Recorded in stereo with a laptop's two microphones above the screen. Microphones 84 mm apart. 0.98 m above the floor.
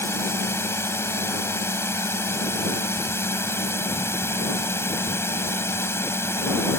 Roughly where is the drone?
Left.